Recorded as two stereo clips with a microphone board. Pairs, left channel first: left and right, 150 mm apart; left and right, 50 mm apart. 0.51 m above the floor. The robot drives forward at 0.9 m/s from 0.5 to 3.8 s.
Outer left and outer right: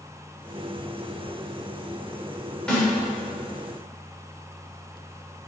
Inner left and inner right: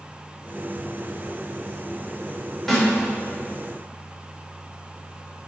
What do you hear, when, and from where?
2.7 s a snare drum: 5° left (ahead or behind), 2 m